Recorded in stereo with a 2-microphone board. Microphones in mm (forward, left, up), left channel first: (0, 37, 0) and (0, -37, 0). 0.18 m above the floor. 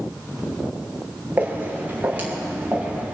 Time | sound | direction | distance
1.4 | footsteps | 25° right (ahead or behind) | 4.5 m